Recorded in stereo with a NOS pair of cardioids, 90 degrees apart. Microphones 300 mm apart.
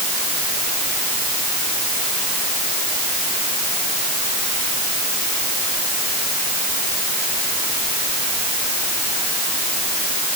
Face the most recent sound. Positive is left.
No sound to turn to.